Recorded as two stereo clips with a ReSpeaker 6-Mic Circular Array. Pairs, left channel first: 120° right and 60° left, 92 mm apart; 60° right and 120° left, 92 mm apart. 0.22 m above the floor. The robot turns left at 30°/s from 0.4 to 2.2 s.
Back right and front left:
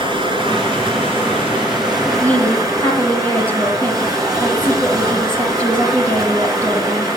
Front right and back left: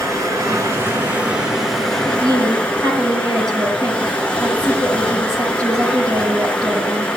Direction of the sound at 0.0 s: 70° left.